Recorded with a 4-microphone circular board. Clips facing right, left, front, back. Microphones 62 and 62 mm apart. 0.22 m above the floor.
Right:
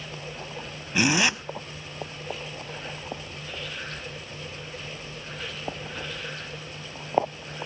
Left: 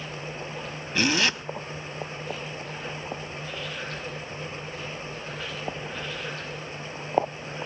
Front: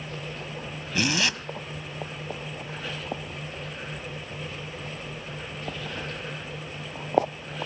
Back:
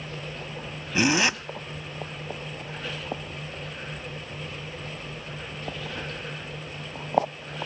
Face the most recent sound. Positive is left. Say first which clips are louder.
# right 2 dB, back 4 dB
turn(degrees=-145)